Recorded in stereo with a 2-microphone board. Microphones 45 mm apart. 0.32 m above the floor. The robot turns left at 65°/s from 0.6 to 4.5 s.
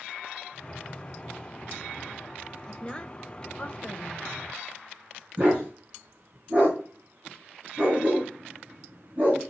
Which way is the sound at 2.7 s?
15° left (ahead or behind).